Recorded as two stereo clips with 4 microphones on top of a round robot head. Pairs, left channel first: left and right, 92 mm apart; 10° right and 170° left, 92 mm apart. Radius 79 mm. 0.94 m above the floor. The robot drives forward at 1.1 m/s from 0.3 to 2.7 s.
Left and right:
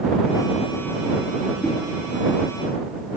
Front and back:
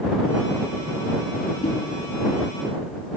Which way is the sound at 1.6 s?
Straight ahead.